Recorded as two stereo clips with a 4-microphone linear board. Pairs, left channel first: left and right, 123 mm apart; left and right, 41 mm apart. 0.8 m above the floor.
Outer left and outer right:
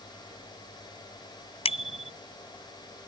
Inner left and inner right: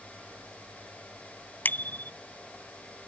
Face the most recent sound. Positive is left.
turn(degrees=55)  # may be behind; listen again after turning